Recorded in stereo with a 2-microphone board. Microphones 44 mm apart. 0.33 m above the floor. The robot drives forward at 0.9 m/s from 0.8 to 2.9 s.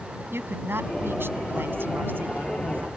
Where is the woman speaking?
65° right (ahead or behind); by 2.9 s 50° right (ahead or behind).